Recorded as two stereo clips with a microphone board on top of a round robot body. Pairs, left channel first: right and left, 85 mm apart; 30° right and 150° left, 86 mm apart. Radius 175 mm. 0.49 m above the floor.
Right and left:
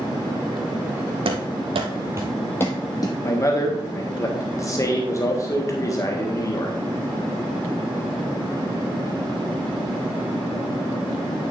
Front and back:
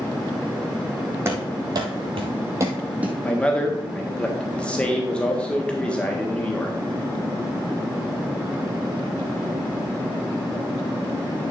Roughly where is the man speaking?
Right.